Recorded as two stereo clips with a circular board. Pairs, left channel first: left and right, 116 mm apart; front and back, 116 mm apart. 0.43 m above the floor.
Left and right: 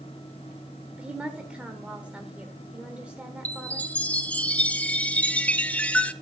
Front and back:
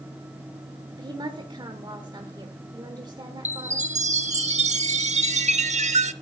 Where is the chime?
170° left, 0.7 m.